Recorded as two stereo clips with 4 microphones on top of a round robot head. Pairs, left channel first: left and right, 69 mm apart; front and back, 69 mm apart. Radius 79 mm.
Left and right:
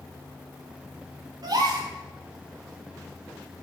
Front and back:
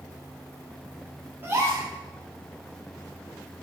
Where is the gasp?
115° right, 3 m.